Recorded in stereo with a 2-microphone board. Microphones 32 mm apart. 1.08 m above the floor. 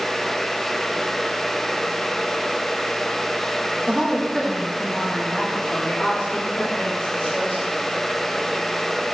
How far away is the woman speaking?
About 1.2 m.